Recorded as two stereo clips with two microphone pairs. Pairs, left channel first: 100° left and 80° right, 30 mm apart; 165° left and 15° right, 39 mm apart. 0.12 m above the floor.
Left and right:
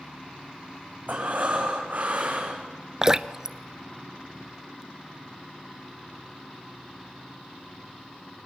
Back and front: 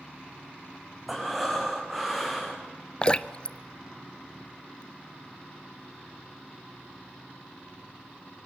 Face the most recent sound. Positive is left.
turn(degrees=-140)